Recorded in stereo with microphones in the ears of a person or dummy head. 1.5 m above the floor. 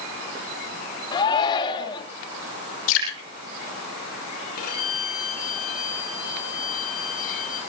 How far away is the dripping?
About 8 m.